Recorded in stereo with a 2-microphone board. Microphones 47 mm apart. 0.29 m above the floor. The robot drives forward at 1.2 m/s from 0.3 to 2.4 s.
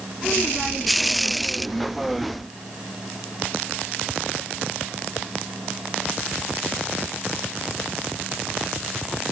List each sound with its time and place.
Only background noise.